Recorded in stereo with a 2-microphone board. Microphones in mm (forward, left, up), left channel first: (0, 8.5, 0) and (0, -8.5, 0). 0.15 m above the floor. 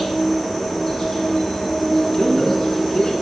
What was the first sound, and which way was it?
An insect, 35° left (ahead or behind).